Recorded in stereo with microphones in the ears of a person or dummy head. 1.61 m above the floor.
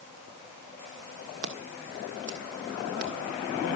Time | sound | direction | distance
1.4 | scissors | 55° right (ahead or behind) | 1.8 m